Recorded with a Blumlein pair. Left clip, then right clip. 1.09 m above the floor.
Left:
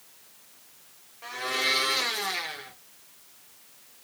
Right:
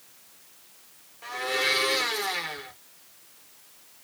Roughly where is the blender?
Ahead.